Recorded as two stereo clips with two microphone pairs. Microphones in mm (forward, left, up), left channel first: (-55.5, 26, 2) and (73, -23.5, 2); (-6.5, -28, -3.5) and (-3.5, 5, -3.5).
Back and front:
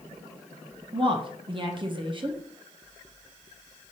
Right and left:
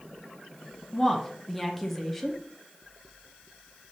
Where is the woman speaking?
20° right, 0.7 m.